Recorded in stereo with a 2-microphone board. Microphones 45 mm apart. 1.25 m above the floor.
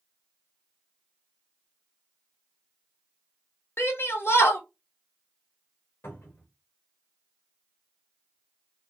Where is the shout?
65° left (ahead or behind), 1.5 m.